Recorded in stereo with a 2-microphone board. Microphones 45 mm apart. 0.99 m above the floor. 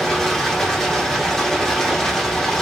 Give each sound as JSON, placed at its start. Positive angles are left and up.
{"t": 0.0, "sound": "running water", "side_deg": 10, "distance_m": 1.8}